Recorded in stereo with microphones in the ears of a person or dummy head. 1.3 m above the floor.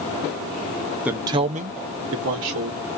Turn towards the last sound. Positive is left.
turn(degrees=-60)  # may be behind; listen again after turning